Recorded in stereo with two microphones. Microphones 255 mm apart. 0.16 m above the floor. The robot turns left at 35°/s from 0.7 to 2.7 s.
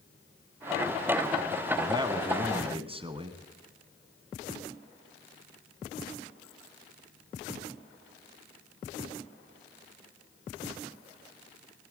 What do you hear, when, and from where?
1.8 s a man speaking: 15° right (ahead or behind), 1.1 m; by 3.4 s 20° right (ahead or behind), 1.1 m